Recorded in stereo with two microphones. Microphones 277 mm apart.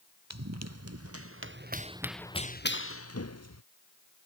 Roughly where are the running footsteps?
Right.